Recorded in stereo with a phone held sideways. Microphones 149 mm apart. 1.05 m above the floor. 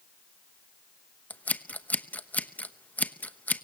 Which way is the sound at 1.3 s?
10° left (ahead or behind).